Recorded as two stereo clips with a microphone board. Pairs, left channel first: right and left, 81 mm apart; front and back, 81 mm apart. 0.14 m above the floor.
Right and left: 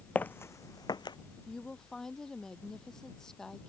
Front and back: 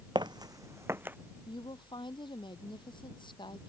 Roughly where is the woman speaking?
Ahead.